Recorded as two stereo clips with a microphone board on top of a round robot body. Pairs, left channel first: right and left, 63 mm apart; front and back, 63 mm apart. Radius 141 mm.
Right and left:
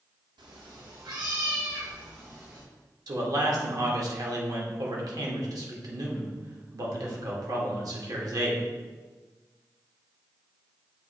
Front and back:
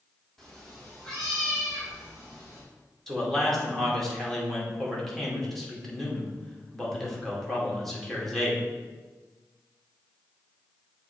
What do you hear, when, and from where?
0.4 s a cat meowing: 85° left, 1.0 m
3.1 s a man speaking: 85° left, 2 m